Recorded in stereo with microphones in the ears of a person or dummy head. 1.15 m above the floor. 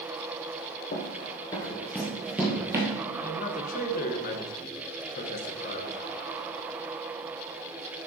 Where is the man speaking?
40° left (ahead or behind), 1.0 m.